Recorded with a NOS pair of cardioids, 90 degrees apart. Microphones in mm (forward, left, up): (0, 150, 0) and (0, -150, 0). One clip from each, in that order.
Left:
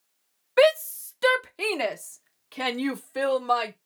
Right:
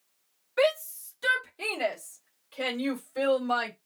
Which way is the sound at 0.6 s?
60° left.